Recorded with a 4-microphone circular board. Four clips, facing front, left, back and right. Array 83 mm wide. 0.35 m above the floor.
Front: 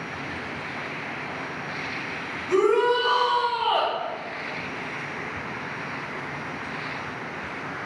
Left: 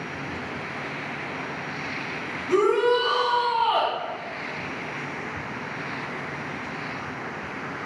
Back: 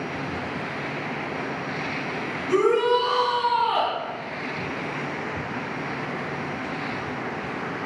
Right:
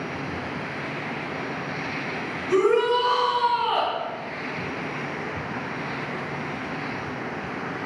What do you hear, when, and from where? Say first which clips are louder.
2.5 s a shout: even, even; 140° right, 1.2 m; by 3.9 s 25° right, 1.4 m